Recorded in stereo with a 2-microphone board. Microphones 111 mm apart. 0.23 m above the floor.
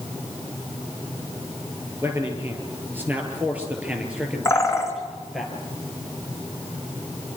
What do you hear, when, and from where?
2.0 s a man speaking: 25° right (ahead or behind), 4.5 m; by 5.5 s centre (ahead or behind), 5 m
4.5 s a bird: 25° left (ahead or behind), 2.5 m